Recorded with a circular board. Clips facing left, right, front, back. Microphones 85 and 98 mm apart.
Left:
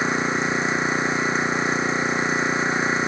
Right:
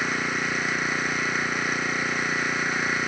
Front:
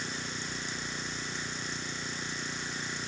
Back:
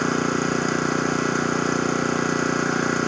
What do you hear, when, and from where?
0.0 s an engine running: 155° left